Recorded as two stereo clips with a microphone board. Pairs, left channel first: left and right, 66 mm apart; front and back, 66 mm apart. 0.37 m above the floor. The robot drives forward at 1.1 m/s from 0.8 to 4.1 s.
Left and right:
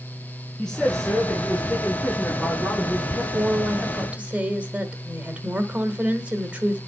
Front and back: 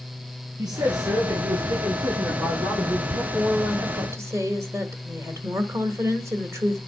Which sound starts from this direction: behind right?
A woman speaking, at 3.3 s.